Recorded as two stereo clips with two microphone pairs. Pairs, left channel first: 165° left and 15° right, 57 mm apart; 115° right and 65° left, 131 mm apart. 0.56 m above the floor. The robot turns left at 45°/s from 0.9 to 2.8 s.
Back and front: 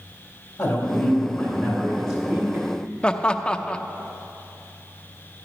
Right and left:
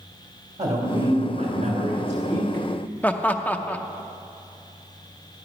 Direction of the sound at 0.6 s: 90° left.